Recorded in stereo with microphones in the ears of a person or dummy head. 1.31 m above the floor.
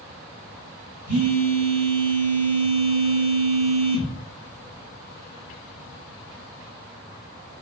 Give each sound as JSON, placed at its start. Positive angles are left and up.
{"t": 1.1, "sound": "a phone buzzing", "side_deg": -80, "distance_m": 1.6}